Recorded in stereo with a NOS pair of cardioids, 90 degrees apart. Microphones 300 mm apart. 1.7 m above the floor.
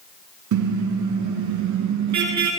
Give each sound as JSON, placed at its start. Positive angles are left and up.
{"t": 0.5, "sound": "a car horn", "azimuth_deg": -65, "distance_m": 9.5}